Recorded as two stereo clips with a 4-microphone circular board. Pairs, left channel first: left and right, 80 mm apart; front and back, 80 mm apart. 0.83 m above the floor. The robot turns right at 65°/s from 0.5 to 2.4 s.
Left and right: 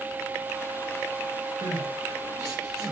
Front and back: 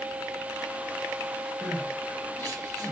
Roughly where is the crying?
Right.